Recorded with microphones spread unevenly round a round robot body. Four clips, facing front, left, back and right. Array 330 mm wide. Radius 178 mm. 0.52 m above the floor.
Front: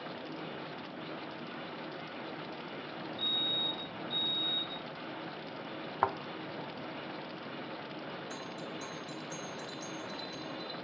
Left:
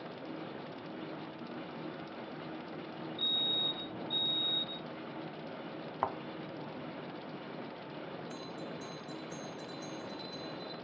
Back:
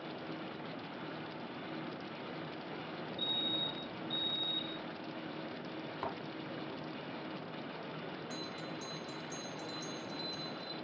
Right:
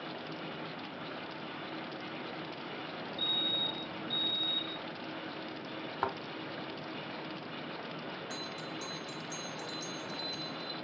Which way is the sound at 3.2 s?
25° left.